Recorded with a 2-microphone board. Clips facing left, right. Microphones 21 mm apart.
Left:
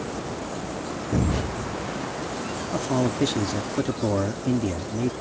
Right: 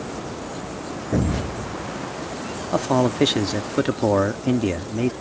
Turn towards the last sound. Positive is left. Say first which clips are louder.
# right 5 dB
turn(degrees=-50)  # may be behind; listen again after turning